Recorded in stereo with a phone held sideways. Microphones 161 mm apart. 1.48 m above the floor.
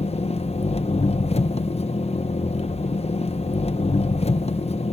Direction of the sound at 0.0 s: 40° left (ahead or behind).